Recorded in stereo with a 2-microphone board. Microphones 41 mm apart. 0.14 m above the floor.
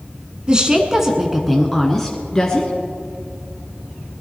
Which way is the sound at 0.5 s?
25° right (ahead or behind).